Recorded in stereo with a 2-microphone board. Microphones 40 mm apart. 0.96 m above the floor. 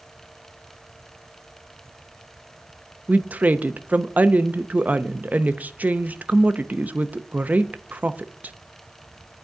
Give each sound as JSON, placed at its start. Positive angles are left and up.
{"t": 3.1, "sound": "a woman speaking", "side_deg": -40, "distance_m": 0.7}